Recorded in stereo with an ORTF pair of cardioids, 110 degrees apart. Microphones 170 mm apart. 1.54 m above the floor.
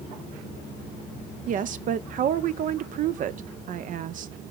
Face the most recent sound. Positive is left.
turn(degrees=-50)